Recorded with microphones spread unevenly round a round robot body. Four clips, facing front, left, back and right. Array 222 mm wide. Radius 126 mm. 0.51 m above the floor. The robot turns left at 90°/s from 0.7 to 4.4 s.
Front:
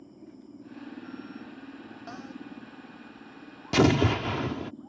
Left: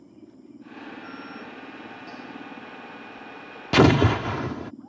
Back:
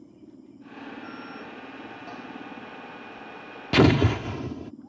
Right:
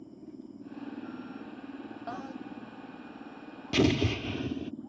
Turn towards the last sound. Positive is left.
turn(degrees=60)